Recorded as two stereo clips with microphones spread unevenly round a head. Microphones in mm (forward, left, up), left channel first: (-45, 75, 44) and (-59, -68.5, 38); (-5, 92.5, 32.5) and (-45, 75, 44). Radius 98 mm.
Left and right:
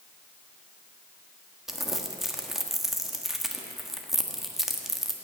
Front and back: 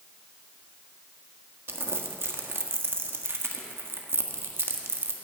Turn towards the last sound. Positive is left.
turn(degrees=175)